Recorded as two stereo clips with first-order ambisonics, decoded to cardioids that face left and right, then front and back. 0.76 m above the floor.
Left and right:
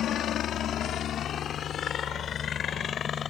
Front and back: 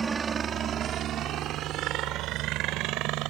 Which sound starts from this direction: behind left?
A helicopter, at 0.0 s.